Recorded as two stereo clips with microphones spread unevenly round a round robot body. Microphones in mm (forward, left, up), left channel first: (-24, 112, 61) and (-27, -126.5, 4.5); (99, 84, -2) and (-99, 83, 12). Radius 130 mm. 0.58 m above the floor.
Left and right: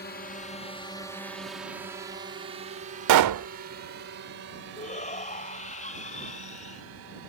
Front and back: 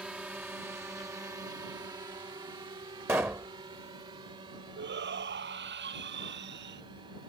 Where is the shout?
150° left.